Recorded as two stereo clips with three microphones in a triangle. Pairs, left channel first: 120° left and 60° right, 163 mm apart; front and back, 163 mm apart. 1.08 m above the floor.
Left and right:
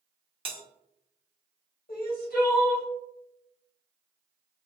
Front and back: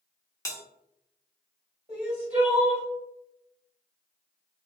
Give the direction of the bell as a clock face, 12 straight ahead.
2 o'clock.